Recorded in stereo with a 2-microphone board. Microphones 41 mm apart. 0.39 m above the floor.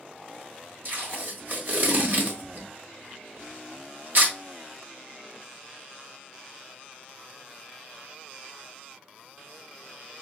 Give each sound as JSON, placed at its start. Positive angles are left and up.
{"t": 0.8, "sound": "tape being pulled", "side_deg": -55, "distance_m": 1.2}